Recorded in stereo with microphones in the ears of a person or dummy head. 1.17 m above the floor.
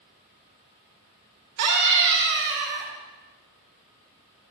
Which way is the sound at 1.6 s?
60° right (ahead or behind).